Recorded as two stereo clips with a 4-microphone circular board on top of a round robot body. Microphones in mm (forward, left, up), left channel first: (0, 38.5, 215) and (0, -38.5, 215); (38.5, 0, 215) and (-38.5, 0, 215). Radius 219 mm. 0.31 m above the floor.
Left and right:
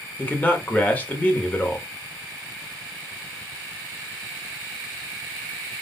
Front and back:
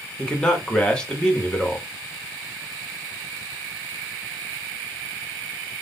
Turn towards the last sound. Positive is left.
turn(degrees=60)